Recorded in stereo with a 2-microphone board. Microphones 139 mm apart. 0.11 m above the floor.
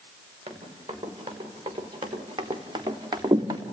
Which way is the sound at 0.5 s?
35° right (ahead or behind).